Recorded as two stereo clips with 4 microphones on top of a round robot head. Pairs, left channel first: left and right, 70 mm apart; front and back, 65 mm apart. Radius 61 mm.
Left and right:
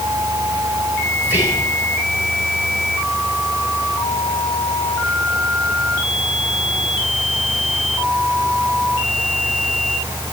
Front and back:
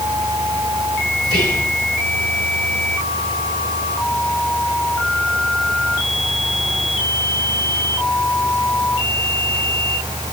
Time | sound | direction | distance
1.2 | whispering | 30° right | 9.5 m